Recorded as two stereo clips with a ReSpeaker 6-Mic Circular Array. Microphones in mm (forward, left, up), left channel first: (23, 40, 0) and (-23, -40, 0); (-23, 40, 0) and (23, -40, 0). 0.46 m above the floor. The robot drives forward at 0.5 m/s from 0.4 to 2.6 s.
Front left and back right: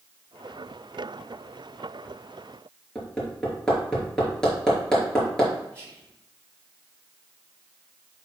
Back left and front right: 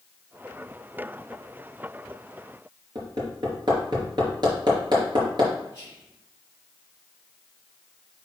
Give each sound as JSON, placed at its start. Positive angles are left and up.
{"t": 3.0, "sound": "hammering", "azimuth_deg": -25, "distance_m": 4.0}
{"t": 5.7, "sound": "whispering", "azimuth_deg": -175, "distance_m": 4.0}